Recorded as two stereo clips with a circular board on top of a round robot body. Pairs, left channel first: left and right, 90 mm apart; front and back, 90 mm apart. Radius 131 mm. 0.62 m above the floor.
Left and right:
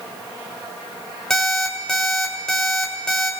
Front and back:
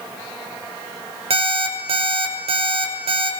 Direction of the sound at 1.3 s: 175° left.